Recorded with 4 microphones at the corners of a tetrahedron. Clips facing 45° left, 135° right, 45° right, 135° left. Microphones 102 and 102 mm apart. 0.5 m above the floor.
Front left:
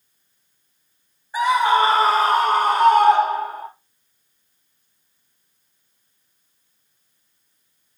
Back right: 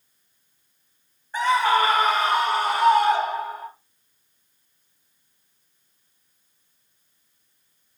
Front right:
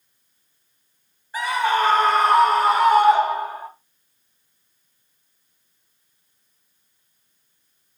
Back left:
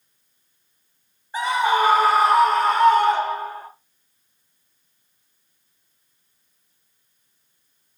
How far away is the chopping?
I don't hear chopping.